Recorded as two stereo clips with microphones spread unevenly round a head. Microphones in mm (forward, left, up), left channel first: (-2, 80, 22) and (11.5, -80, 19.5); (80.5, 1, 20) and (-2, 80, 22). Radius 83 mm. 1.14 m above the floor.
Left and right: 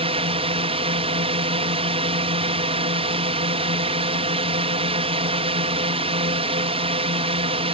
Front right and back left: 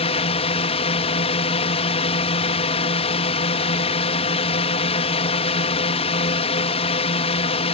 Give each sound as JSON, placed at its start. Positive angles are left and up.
{"t": 0.0, "sound": "a drone", "azimuth_deg": -40}